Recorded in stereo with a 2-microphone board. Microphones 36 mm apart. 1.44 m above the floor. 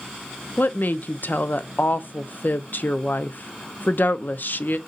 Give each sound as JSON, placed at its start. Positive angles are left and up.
{"t": 0.6, "sound": "a woman speaking", "side_deg": 60, "distance_m": 0.5}